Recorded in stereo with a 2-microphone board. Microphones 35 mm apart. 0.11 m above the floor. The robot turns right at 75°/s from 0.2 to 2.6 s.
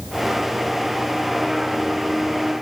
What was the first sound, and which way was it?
Only background noise.